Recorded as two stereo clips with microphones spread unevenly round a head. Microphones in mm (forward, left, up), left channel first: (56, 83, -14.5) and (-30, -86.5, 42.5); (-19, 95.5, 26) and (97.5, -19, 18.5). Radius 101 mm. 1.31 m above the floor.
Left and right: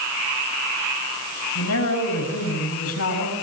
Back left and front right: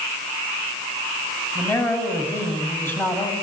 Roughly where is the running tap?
I don't hear a running tap.